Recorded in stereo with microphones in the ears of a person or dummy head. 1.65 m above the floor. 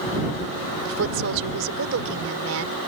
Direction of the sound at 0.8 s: 80° right.